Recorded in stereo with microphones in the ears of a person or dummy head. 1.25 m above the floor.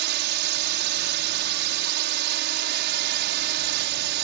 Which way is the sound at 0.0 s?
60° right (ahead or behind).